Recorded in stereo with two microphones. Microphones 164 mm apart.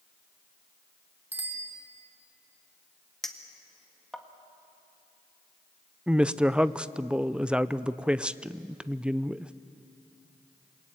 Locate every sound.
1.3 s a bicycle bell: 10° right (ahead or behind), 3 m
3.2 s a clink: centre (ahead or behind), 1.6 m
6.1 s a woman speaking: 5° right (ahead or behind), 0.5 m